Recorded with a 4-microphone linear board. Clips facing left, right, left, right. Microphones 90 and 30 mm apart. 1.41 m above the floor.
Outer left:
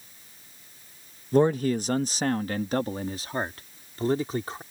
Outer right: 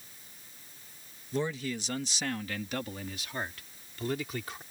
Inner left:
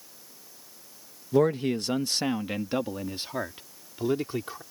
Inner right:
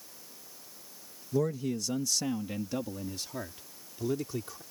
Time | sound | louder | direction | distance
1.3 | a man speaking | outer left 12 dB, inner left 7 dB | 55° left (ahead or behind) | ?